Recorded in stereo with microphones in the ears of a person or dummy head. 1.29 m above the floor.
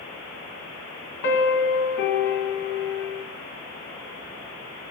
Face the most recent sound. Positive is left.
turn(degrees=55)  # may be behind; listen again after turning